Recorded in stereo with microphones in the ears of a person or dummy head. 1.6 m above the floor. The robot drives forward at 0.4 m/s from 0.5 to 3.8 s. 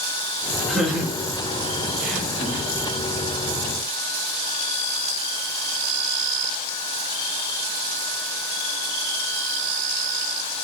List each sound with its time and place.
0.7 s laughter: 5° right (ahead or behind), 3.5 m